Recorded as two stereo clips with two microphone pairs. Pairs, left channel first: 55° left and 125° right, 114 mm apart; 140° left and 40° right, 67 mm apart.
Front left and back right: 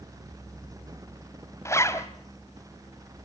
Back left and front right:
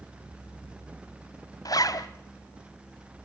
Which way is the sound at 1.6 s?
120° left.